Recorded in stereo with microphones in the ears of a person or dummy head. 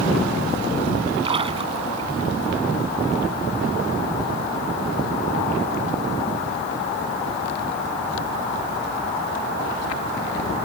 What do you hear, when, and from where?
1.2 s a splash: 35° right (ahead or behind)